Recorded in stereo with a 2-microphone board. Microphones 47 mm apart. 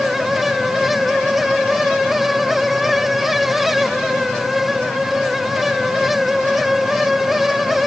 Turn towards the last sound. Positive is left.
No sound to turn to.